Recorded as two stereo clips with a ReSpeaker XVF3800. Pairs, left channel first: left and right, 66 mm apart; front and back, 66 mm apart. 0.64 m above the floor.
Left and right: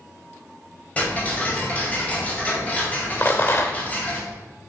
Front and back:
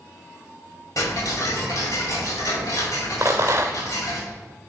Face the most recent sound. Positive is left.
turn(degrees=140)